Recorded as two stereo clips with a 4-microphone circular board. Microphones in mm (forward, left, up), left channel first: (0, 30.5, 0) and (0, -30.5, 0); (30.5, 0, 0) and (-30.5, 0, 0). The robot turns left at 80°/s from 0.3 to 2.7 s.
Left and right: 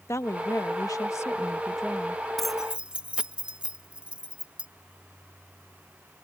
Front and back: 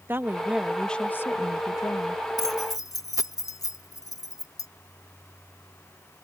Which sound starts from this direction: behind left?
A woman speaking, at 0.1 s.